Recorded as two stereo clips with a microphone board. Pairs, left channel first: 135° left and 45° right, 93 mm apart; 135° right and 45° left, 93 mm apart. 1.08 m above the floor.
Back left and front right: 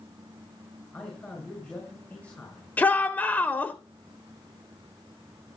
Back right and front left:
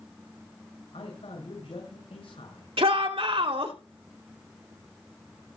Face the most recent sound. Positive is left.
turn(degrees=60)